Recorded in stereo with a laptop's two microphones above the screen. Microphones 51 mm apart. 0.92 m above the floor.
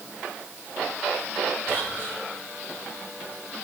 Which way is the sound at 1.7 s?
60° right (ahead or behind).